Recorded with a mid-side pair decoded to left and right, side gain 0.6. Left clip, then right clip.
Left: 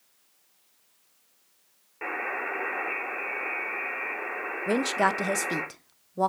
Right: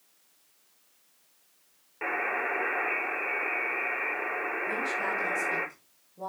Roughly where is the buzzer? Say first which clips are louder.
Right 2 dB; ahead.